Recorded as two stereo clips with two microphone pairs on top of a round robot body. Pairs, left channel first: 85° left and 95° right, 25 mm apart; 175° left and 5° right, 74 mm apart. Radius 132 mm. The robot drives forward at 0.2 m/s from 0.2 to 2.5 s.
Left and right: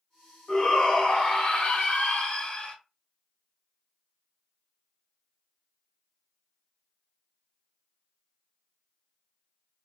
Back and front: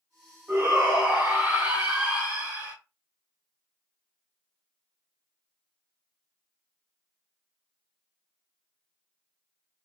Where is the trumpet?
No trumpet in this recording.